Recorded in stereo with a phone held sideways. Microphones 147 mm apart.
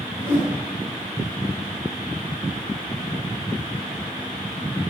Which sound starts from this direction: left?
A whoosh, at 0.2 s.